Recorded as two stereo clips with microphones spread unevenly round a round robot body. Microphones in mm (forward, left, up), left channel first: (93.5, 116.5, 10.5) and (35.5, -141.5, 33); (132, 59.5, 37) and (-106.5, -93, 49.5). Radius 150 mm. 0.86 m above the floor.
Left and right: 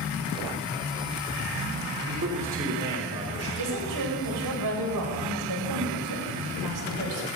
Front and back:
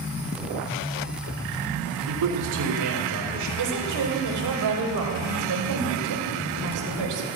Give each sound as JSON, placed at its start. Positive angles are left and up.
{"t": 2.1, "sound": "a man speaking", "azimuth_deg": -150, "distance_m": 3.5}
{"t": 3.6, "sound": "a woman speaking", "azimuth_deg": -125, "distance_m": 3.5}